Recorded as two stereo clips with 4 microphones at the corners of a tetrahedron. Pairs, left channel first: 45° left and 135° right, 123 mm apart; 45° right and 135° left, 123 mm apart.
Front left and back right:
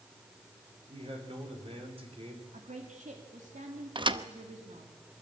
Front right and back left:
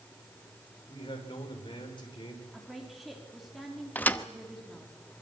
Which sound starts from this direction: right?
A man speaking, at 0.9 s.